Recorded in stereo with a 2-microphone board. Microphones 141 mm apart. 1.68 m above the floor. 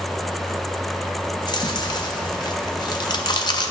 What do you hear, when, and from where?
1.4 s chewing: 30° left (ahead or behind), 0.5 m